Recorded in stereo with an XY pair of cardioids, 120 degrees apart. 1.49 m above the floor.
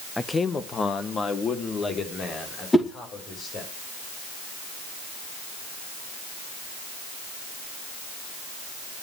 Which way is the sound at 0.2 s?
10° left.